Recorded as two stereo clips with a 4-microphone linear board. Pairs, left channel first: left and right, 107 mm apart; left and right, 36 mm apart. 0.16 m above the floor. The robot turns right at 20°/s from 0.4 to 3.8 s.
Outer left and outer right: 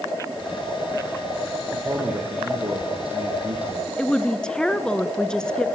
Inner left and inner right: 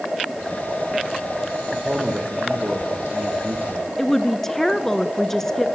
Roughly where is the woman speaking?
Centre.